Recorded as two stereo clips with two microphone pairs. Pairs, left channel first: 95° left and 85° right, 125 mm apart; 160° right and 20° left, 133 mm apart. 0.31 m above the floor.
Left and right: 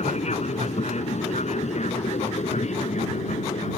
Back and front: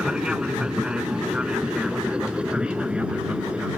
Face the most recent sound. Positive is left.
turn(degrees=105)